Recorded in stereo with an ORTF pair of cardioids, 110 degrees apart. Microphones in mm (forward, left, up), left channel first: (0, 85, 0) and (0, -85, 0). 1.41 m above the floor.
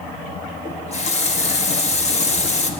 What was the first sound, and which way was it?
A running tap, 40° left.